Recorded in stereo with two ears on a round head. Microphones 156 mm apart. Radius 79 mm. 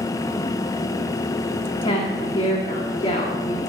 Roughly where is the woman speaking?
Left.